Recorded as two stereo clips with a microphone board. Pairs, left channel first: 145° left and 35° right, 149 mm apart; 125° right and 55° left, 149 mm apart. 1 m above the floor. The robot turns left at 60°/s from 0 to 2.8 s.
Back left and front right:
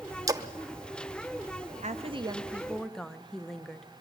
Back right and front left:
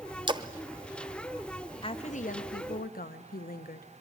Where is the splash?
20° left, 0.7 m; by 0.5 s 10° left, 0.7 m.